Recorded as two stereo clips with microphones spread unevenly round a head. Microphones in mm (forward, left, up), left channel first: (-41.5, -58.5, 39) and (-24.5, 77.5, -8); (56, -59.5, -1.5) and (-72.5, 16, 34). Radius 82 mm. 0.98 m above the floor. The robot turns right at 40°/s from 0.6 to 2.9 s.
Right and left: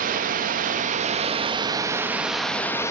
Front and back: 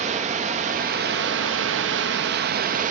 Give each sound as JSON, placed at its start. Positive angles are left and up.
{"t": 0.0, "sound": "running water", "azimuth_deg": 100, "distance_m": 0.8}